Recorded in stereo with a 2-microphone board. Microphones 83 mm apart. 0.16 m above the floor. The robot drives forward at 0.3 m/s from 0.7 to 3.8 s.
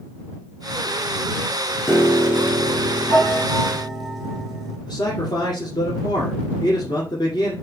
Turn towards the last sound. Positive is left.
turn(degrees=60)  # may be behind; listen again after turning